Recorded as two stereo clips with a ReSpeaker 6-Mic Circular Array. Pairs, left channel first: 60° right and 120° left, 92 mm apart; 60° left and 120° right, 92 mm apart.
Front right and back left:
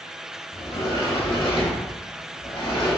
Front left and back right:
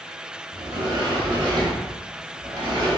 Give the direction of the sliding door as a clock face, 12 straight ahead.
3 o'clock.